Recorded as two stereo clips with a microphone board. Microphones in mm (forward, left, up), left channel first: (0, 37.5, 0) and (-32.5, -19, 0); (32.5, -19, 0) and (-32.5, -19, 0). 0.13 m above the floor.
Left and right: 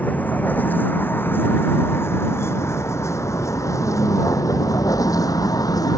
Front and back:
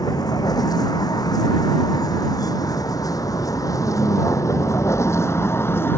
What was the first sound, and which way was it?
A vehicle, 5° right.